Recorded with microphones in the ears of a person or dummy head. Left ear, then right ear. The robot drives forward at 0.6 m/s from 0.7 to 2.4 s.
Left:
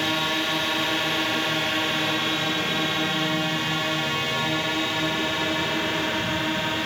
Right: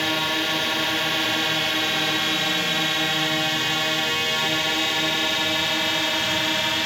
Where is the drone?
10° right (ahead or behind); by 6.9 s 35° right (ahead or behind).